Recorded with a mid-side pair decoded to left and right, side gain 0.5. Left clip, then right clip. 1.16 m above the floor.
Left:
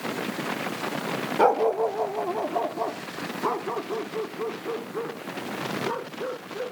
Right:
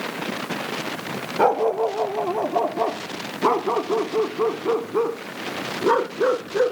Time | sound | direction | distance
1.4 | a dog barking | straight ahead | ?